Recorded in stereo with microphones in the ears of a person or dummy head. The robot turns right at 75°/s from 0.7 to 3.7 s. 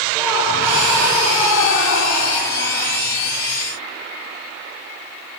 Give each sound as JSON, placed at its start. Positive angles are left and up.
{"t": 0.1, "sound": "laughter", "azimuth_deg": -15, "distance_m": 2.5}